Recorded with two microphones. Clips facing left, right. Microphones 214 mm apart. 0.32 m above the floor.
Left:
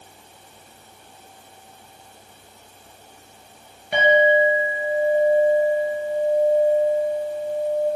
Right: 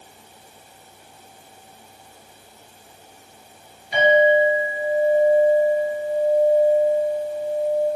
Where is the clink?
60° left (ahead or behind), 2.5 m.